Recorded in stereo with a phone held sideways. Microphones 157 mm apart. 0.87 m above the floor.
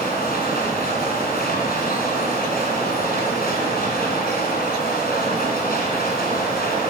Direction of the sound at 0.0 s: 75° left (ahead or behind).